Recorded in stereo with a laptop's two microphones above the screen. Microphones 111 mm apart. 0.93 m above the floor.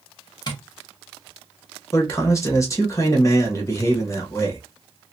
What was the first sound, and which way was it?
Tapping, 40° left (ahead or behind).